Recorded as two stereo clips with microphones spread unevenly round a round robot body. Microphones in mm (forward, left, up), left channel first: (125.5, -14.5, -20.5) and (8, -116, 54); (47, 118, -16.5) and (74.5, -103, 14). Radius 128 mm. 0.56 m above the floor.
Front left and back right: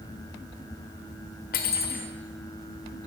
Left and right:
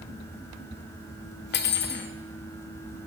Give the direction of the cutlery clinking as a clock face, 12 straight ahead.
10 o'clock.